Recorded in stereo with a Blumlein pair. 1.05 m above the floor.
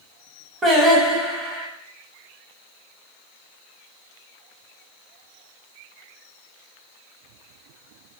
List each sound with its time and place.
0.6 s singing: 15° right, 0.8 m